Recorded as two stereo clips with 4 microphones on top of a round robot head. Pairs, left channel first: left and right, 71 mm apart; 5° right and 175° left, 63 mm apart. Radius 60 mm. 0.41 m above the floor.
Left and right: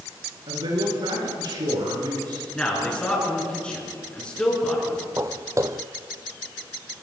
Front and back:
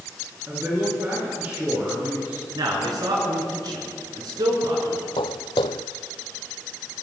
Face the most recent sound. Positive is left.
turn(degrees=-25)